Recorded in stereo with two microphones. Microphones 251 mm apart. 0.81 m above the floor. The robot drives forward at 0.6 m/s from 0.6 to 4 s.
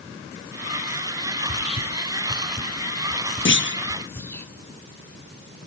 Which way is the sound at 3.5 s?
50° left (ahead or behind).